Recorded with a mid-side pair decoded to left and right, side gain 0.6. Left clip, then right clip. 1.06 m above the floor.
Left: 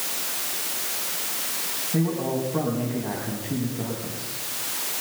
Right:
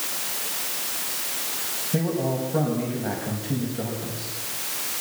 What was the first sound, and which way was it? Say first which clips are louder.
A man speaking: right 1 dB; 55° right.